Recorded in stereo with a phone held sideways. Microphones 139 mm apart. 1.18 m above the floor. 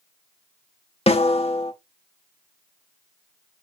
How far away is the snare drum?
About 0.7 m.